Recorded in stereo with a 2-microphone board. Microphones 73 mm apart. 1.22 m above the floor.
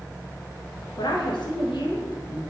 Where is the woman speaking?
85° left, 0.7 m.